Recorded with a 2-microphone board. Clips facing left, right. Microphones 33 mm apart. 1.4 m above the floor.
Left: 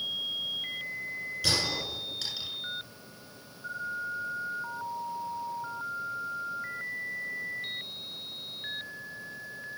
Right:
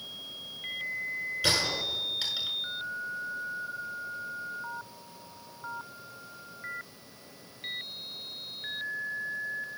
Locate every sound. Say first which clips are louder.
1.4 s a gunshot: right 1 dB; 25° right (ahead or behind), 7.5 m